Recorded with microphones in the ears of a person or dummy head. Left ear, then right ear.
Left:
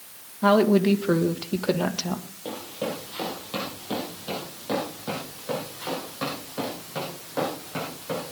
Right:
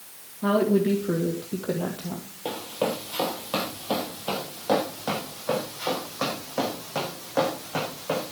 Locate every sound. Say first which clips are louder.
0.4 s a woman speaking: left 3 dB; 30° left (ahead or behind), 1.6 m; by 2.2 s 70° left (ahead or behind), 1.9 m
2.5 s running footsteps: right 4 dB; 25° right (ahead or behind), 2.5 m; by 8.3 s 20° right (ahead or behind), 5 m